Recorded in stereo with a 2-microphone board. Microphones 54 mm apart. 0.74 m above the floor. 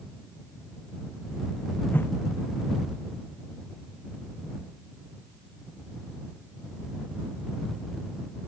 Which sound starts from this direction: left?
A whoosh, at 1.9 s.